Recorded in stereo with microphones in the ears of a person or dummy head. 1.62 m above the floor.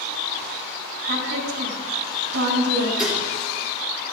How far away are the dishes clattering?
About 2.5 m.